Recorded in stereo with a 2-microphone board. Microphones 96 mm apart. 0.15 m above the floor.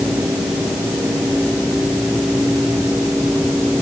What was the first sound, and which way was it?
Only background noise.